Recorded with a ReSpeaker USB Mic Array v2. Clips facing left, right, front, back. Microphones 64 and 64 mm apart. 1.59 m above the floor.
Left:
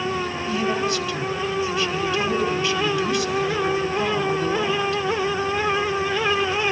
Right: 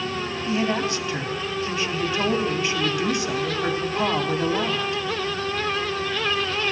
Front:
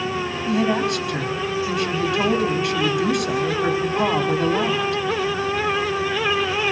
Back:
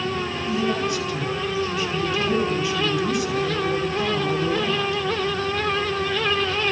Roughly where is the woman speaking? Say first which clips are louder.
Even, front 4 dB; ahead.